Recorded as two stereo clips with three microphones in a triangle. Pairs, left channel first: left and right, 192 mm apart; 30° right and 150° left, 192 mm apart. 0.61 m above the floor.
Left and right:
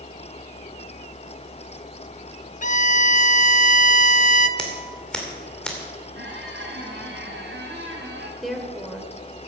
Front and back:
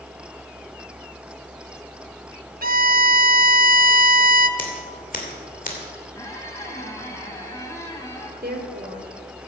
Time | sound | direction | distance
2.6 | a violin | 125° left | 0.5 m
4.6 | scissors | 5° left | 2.5 m
6.2 | a squeak | 105° right | 2 m
8.4 | a woman speaking | straight behind | 1.8 m